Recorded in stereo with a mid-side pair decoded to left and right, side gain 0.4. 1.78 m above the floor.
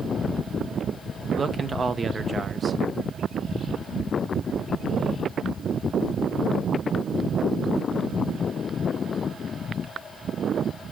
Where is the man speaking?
40° right, 1.6 m.